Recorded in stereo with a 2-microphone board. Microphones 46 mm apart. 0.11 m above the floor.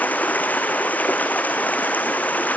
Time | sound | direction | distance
0.0 | running water | 35° left (ahead or behind) | 1.5 m